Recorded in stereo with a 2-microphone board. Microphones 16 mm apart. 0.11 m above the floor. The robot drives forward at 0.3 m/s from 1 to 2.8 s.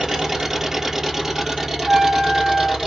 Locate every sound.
0.0 s an engine running: 25° right (ahead or behind), 1.3 m; by 2.9 s 20° right (ahead or behind), 1.8 m
1.9 s a trumpet: 45° right (ahead or behind), 0.5 m; by 2.8 s 30° right (ahead or behind), 0.7 m